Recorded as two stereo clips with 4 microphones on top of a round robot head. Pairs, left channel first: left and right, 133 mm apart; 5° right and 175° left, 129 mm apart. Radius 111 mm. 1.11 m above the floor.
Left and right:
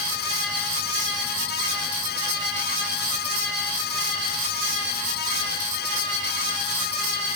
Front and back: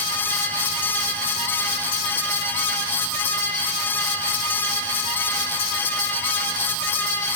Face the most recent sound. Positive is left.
No sound to turn to.